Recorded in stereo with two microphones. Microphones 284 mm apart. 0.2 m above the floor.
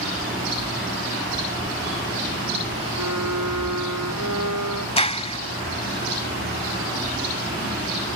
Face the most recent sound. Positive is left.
turn(degrees=20)  # may be behind; listen again after turning